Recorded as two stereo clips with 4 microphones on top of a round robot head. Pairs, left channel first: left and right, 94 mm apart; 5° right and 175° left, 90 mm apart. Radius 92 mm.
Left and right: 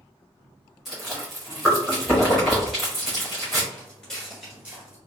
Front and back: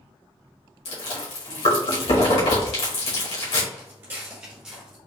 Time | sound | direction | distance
0.8 | chewing | straight ahead | 2.0 m
3.7 | footsteps | 145° left | 1.5 m